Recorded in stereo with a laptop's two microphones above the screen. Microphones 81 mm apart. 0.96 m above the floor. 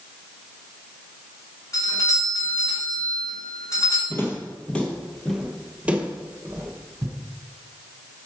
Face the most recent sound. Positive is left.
turn(degrees=-45)  # may be behind; listen again after turning